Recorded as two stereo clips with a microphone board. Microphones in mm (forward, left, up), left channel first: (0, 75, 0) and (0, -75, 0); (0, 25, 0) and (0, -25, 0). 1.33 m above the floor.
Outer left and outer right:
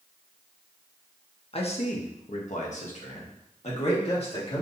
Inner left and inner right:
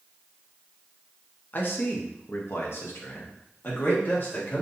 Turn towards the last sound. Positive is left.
turn(degrees=45)  # may be behind; listen again after turning